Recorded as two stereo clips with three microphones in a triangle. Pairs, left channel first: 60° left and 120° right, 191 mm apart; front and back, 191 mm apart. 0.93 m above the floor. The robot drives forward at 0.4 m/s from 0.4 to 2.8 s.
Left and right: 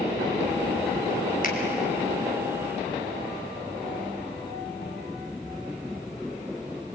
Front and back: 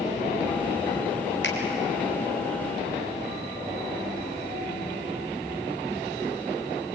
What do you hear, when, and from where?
1.4 s a finger snap: 15° left, 4.5 m